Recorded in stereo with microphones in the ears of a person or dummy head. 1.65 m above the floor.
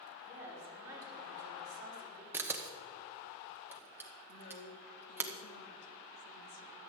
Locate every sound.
0.2 s a woman speaking: 10° right (ahead or behind), 4.5 m; by 2.2 s 25° right (ahead or behind), 4.5 m
2.3 s a camera shutter: 10° right (ahead or behind), 1.2 m
4.3 s a woman speaking: 60° left (ahead or behind), 2 m